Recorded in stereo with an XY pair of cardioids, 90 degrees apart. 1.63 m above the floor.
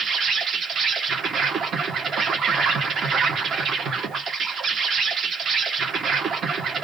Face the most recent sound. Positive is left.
turn(degrees=-70)